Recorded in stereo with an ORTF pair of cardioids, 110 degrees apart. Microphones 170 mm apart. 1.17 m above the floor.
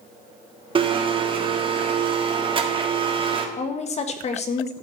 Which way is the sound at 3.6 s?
40° left.